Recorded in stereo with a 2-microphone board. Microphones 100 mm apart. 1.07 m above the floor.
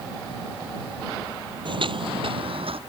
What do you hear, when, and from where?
1.6 s footsteps: 55° right (ahead or behind); by 2.8 s 70° right (ahead or behind)